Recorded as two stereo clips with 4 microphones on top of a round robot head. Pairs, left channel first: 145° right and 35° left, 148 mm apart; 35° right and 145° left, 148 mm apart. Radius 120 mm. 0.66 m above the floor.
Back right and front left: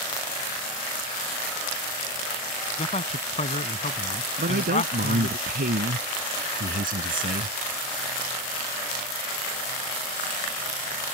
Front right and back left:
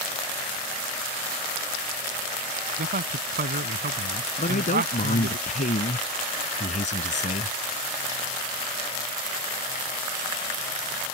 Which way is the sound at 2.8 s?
170° left.